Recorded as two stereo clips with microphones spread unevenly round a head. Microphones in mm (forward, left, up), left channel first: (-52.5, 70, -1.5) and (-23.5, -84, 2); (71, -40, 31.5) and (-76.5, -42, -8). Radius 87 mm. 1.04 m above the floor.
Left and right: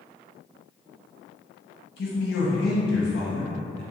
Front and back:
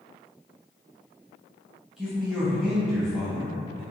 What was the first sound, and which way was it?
A man speaking, 100° left.